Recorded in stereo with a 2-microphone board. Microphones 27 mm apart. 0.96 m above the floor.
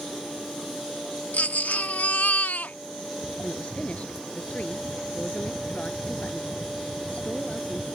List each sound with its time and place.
1.3 s a baby crying: 90° left
3.4 s a woman speaking: 50° left (ahead or behind)